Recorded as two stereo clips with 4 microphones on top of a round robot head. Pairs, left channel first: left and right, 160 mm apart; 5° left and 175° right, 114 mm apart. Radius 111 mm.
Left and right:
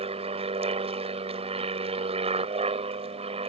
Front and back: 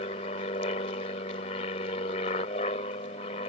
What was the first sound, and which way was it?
An aircraft, 40° right.